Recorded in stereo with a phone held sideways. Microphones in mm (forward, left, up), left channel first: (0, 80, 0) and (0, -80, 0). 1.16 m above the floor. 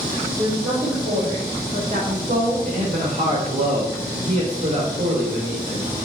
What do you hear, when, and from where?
0.4 s a woman speaking: 15° right (ahead or behind), 2.5 m; by 2.5 s 75° right (ahead or behind), 1.4 m
2.6 s a man speaking: 40° right (ahead or behind), 3 m